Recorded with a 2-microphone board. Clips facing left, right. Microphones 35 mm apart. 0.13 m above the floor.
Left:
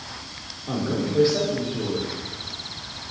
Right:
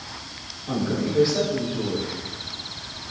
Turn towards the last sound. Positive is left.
turn(degrees=10)  # may be behind; listen again after turning